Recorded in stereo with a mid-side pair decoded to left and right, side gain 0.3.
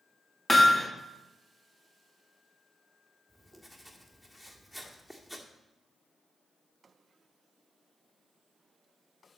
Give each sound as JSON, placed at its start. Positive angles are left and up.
{"t": 0.5, "sound": "hammering", "azimuth_deg": 25, "distance_m": 2.0}
{"t": 3.3, "sound": "writing", "azimuth_deg": 10, "distance_m": 1.7}